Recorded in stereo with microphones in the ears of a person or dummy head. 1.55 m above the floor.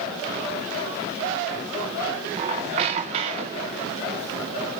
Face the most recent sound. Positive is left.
turn(degrees=-25)  # may be behind; listen again after turning